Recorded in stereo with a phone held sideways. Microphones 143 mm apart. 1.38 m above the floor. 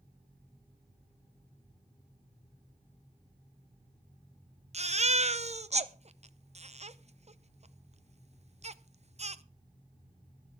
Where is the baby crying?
50° right (ahead or behind), 0.6 m.